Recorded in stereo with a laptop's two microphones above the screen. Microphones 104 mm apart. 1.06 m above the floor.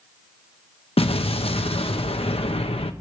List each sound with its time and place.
1.0 s an explosion: 65° left (ahead or behind), 0.8 m